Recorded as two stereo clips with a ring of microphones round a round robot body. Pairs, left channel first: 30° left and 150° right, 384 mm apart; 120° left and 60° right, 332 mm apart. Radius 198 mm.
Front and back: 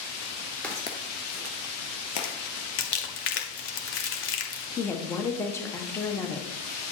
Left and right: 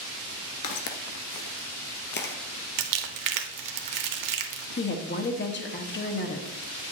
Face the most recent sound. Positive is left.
turn(degrees=105)